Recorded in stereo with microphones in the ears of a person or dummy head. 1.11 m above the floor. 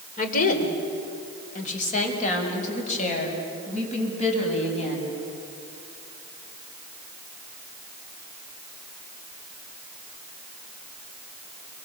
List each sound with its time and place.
0.2 s a woman speaking: 45° left (ahead or behind), 4 m; by 5.1 s 35° left (ahead or behind), 8 m